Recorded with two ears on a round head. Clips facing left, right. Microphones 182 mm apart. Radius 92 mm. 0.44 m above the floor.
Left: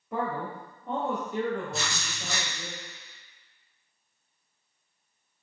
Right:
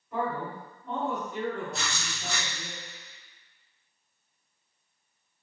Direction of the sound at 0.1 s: 60° left (ahead or behind).